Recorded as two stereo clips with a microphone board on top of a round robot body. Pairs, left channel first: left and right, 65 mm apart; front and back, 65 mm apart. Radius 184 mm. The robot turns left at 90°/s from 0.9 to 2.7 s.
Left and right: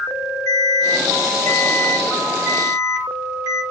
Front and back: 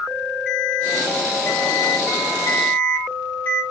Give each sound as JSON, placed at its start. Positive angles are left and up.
{"t": 0.5, "sound": "an alarm", "azimuth_deg": 105, "distance_m": 6.0}